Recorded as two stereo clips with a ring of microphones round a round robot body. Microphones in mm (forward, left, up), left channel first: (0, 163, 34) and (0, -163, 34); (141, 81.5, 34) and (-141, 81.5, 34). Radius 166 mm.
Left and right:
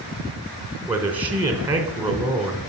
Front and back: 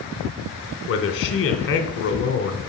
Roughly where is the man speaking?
Ahead.